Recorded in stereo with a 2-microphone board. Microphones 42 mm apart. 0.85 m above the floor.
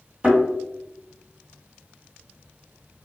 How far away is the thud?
About 1.8 m.